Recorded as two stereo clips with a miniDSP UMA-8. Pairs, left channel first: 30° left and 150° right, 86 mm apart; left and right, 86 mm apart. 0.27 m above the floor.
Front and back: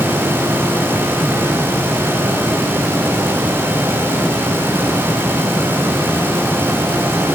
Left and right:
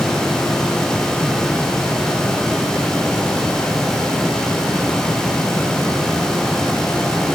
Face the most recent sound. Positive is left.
No sound to turn to.